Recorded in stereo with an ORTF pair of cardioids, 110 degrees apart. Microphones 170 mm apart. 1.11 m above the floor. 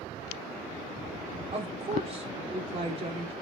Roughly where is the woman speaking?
Ahead right.